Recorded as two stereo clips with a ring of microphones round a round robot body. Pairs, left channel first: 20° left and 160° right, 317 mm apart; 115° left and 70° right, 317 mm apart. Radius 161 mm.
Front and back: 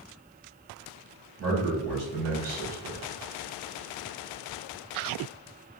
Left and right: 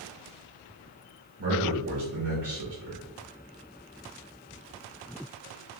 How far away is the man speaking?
About 1.8 m.